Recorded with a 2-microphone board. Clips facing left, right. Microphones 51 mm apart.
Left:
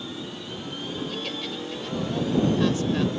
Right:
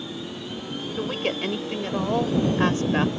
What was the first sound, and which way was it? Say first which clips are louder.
A woman speaking: right 8 dB; 40° right (ahead or behind).